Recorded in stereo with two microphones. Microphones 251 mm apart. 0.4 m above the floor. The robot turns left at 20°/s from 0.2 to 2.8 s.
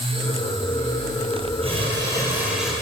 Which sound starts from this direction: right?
Crumpling, at 1.6 s.